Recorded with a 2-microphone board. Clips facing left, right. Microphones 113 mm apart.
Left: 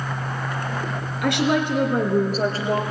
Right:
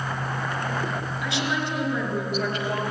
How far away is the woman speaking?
About 2.5 m.